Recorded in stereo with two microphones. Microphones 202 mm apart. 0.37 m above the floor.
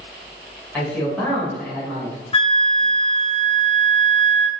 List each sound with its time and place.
0.7 s a man speaking: 5° left (ahead or behind), 1.6 m
2.3 s a flute: 25° left (ahead or behind), 0.5 m